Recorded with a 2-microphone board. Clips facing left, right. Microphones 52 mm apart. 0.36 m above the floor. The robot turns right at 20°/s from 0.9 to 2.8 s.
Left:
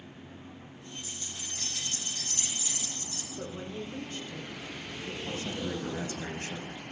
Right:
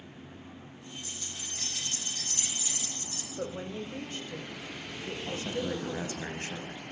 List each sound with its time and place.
1.0 s keys jangling: 60° right, 9 m; by 3.3 s 25° right, 9 m
3.4 s a woman speaking: 40° right (ahead or behind), 1.9 m
5.3 s a man speaking: 30° right (ahead or behind), 2.5 m